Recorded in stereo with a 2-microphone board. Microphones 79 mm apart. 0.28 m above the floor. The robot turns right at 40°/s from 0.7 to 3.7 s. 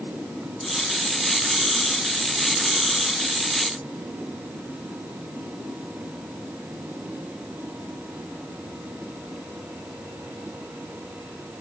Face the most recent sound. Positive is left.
No sound to turn to.